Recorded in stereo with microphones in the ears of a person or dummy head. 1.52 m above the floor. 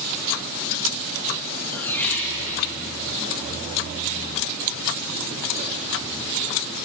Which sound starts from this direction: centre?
A squeak, at 1.7 s.